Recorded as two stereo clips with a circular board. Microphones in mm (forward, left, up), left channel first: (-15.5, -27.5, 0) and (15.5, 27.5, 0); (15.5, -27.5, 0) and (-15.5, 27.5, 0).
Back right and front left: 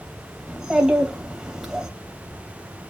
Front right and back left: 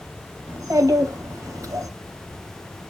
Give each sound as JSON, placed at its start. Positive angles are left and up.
{"t": 0.5, "sound": "a child speaking", "azimuth_deg": 140, "distance_m": 3.0}